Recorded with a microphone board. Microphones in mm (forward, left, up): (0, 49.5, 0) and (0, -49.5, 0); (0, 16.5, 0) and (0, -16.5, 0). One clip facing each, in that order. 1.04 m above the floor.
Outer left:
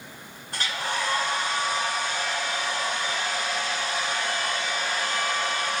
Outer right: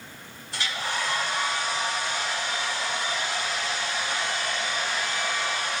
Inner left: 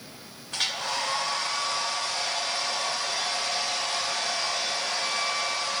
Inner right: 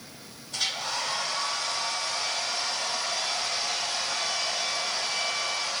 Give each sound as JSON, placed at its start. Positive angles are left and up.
{"t": 0.5, "sound": "a hair dryer", "side_deg": 50, "distance_m": 2.0}